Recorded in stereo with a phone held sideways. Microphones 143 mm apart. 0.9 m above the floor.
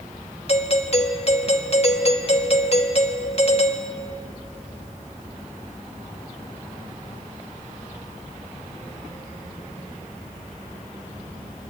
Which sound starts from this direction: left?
A doorbell, at 0.5 s.